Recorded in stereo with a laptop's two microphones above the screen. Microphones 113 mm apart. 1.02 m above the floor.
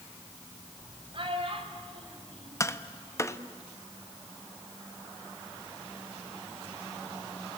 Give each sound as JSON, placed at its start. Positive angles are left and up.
{"t": 1.1, "sound": "a child speaking", "side_deg": -50, "distance_m": 3.0}
{"t": 2.6, "sound": "tapping", "side_deg": 25, "distance_m": 0.9}